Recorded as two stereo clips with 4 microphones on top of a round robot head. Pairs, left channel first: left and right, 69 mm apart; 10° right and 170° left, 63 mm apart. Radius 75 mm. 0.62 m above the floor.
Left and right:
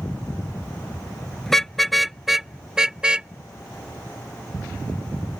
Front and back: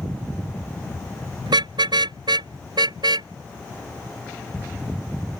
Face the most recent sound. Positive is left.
turn(degrees=-150)